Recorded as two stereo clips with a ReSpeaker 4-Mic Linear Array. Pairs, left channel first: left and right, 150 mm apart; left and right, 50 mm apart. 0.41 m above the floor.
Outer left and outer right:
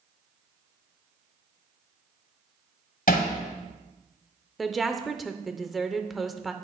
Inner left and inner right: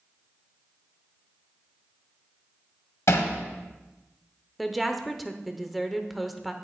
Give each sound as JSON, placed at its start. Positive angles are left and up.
{"t": 3.1, "sound": "hammering", "side_deg": 70, "distance_m": 1.4}
{"t": 4.6, "sound": "a woman speaking", "side_deg": 0, "distance_m": 0.8}